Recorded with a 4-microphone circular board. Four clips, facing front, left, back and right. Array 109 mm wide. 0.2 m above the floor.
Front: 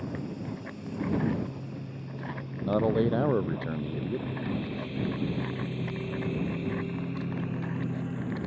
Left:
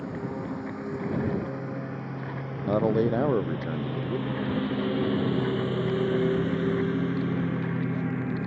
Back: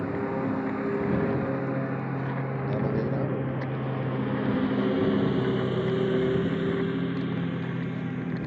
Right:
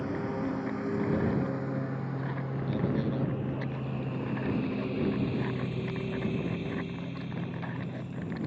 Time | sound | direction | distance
0.0 | a lawn mower | 175° right | ?
2.6 | a man speaking | 65° left | ?